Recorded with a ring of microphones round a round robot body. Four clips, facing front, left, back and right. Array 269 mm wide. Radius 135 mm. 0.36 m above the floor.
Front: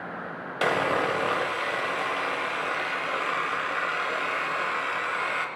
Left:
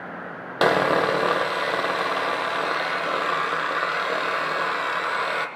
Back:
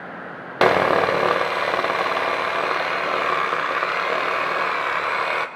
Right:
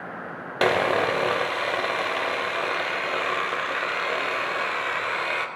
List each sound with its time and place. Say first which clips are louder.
0.6 s sawing: left 2 dB, back 8 dB; 170° left, 1.0 m